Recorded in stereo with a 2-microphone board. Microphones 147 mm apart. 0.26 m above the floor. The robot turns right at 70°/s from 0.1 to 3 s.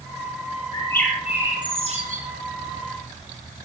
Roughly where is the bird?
Behind left.